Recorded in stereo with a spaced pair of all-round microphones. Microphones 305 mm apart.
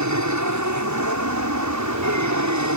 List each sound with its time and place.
0.0 s an aircraft: 65° right (ahead or behind)